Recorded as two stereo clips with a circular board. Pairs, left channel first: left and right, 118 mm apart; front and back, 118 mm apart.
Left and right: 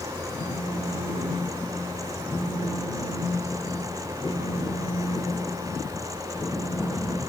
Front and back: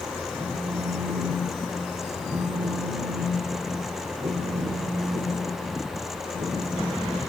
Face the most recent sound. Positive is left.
turn(degrees=150)